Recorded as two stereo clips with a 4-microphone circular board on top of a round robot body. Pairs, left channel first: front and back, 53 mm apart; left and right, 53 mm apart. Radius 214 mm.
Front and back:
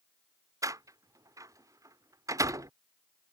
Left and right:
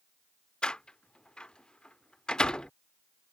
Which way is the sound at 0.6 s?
165° left.